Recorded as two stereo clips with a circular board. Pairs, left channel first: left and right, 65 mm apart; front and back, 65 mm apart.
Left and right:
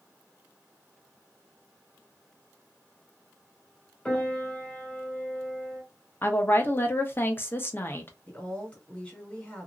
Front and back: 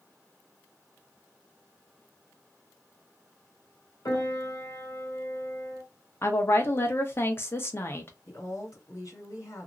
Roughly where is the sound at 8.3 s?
Ahead.